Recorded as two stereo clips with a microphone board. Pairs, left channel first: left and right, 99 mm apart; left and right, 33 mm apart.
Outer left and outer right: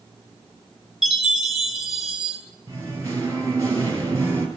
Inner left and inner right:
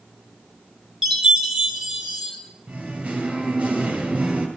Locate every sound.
1.0 s a chime: 5° right (ahead or behind), 3 m
2.7 s singing: 30° right (ahead or behind), 3 m